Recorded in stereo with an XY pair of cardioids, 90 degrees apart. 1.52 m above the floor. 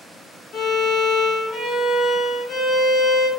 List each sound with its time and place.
0.5 s a violin: 65° left, 0.6 m